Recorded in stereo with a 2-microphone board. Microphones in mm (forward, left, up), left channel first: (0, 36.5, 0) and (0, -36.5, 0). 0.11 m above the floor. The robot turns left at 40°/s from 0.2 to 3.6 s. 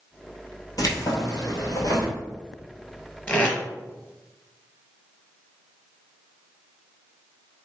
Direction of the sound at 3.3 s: 20° left (ahead or behind).